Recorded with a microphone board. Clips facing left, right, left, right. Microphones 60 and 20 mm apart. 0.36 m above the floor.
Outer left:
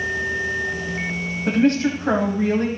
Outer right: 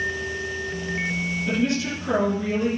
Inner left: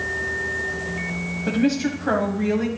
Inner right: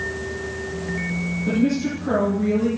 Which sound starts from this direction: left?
A woman speaking, at 1.5 s.